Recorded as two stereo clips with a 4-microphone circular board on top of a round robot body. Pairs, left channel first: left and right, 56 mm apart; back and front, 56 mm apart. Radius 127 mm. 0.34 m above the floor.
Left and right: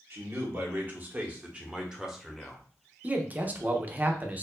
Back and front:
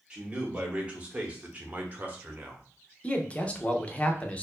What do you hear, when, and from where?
0.1 s a man speaking: 65° right, 1.8 m; by 2.6 s 5° left, 1.3 m
3.0 s a man speaking: 130° right, 0.9 m